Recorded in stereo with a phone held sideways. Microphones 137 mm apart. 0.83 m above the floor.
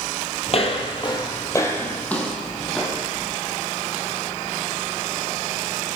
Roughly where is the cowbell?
No cowbell in this recording.